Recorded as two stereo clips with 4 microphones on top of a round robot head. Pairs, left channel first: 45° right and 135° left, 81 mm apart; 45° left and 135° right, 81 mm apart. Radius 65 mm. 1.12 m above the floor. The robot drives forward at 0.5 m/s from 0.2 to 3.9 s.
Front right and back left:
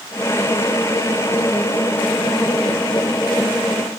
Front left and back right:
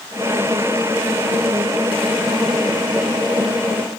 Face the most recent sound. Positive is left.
No sound to turn to.